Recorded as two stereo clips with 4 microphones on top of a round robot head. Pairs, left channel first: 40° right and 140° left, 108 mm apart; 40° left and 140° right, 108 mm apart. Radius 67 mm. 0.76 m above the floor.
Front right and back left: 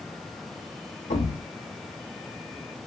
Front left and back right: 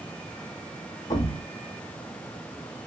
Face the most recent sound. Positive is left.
turn(degrees=-20)